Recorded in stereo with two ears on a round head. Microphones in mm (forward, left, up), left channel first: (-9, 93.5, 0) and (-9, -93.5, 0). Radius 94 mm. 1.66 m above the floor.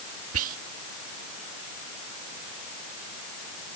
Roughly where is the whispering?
Right.